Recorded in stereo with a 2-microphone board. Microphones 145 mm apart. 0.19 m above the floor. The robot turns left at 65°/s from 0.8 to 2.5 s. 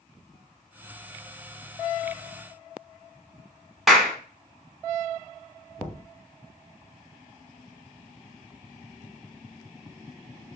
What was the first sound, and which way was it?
A clap, centre (ahead or behind).